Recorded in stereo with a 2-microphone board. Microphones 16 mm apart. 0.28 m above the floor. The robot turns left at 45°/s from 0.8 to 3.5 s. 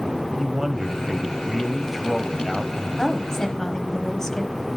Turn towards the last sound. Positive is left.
turn(degrees=45)  # may be behind; listen again after turning